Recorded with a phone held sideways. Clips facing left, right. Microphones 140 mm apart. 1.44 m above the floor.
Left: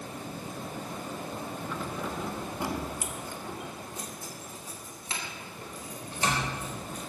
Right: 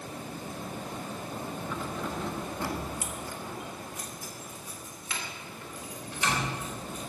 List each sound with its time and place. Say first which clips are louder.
1.7 s keys jangling: even; 5° right (ahead or behind), 1.2 m; by 7.1 s 40° left (ahead or behind), 4 m